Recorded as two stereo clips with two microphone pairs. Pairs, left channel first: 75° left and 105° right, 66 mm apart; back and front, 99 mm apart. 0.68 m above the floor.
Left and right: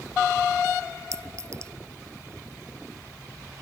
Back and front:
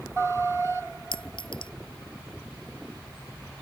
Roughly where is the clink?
Behind right.